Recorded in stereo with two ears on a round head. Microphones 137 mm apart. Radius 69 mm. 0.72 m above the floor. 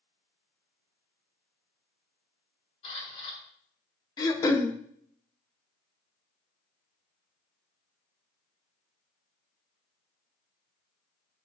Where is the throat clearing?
25° left (ahead or behind), 0.7 m.